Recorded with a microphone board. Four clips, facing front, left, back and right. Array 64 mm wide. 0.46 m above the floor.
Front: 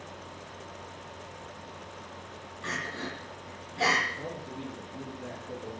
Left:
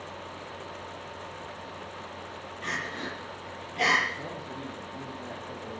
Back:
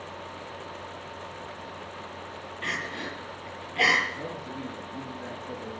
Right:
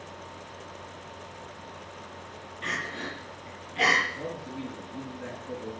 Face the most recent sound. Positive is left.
turn(degrees=-140)